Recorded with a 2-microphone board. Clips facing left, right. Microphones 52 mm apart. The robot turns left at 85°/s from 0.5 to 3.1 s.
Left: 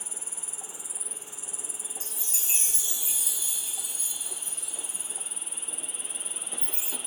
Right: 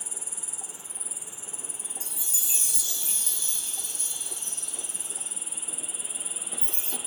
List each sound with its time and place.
0.0 s an insect: 45° left; by 7.1 s 175° right
2.0 s a chime: 100° left; by 7.0 s 10° left